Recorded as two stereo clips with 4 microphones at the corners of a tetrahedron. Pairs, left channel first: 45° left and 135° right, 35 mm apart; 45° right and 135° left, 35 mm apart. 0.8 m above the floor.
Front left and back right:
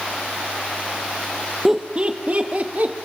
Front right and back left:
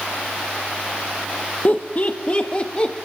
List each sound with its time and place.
1.6 s laughter: 55° right, 1.1 m; by 2.9 s 105° right, 2.5 m